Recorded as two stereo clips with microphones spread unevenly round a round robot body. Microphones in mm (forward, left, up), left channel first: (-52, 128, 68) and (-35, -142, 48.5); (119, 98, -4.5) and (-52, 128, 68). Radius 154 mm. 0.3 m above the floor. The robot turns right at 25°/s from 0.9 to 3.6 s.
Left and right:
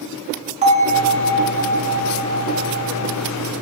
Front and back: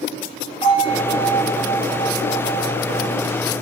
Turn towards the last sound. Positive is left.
turn(degrees=-80)